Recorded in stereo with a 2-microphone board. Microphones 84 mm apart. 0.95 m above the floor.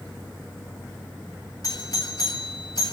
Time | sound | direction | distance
1.6 | a doorbell | 50° left (ahead or behind) | 6 m